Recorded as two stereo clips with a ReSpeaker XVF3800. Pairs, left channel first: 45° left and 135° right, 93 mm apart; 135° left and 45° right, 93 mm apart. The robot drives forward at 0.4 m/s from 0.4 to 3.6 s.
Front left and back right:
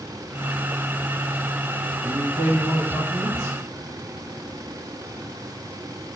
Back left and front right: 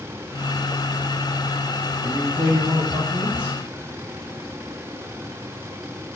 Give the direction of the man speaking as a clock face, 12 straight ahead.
3 o'clock.